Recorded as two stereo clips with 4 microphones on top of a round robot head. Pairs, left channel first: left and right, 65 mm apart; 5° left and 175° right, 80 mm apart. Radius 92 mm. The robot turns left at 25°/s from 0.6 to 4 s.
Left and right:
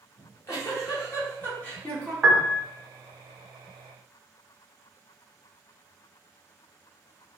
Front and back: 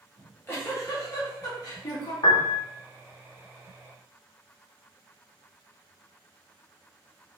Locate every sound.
0.2 s a giggle: 55° left, 1.8 m; by 2.1 s 20° left, 1.8 m
2.2 s a piano: 10° right, 1.0 m; by 2.6 s 20° right, 1.0 m